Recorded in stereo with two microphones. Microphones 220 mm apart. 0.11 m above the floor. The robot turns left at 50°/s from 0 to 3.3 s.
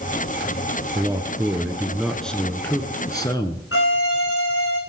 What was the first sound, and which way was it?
A man speaking, 15° right (ahead or behind).